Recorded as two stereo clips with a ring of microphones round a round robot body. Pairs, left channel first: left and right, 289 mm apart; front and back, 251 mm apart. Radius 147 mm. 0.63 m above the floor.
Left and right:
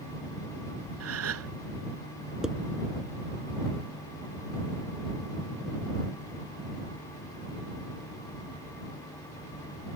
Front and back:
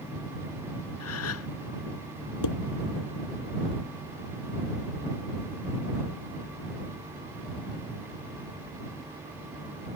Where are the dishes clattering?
Straight ahead.